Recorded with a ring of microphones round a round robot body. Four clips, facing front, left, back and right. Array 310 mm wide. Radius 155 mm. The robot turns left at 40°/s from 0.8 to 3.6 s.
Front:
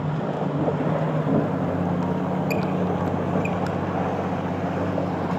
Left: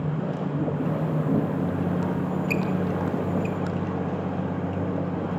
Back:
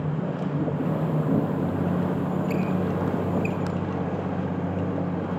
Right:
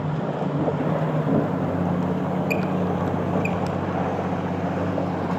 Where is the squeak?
5° left, 1.4 m; by 3.7 s 60° right, 1.4 m.